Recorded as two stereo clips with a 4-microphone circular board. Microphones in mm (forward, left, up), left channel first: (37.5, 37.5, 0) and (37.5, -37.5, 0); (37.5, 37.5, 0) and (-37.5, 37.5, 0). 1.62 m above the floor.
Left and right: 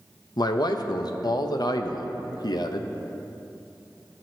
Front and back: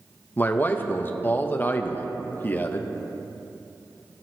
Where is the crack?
I don't hear a crack.